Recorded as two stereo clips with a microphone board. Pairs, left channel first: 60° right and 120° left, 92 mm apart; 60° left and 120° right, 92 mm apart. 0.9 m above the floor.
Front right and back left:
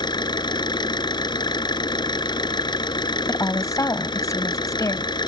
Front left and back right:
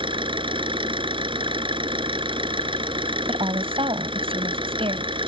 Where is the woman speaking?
115° right.